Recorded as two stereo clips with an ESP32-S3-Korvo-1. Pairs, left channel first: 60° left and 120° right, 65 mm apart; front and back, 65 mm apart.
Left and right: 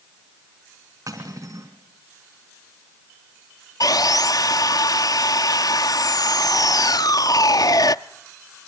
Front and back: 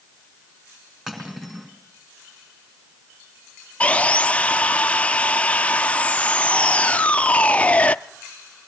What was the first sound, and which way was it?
Cutlery clinking, 95° right.